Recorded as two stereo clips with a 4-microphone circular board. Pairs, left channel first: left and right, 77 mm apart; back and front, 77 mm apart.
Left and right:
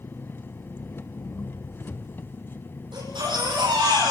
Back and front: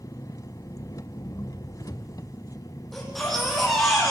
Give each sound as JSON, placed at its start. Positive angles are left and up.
{"t": 0.0, "sound": "an engine running", "azimuth_deg": 150, "distance_m": 1.0}
{"t": 2.9, "sound": "a baby crying", "azimuth_deg": -90, "distance_m": 10.0}